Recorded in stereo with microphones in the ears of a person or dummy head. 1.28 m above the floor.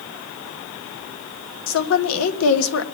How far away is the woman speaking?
About 1.3 m.